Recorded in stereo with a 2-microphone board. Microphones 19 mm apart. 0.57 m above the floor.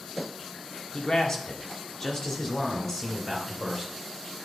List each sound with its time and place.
0.9 s a man speaking: 50° left (ahead or behind), 1.5 m; by 3.9 s 5° left (ahead or behind), 2.5 m